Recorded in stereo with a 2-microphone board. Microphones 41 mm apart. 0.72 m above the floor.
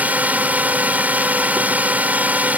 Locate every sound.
0.0 s a drone: 45° right (ahead or behind)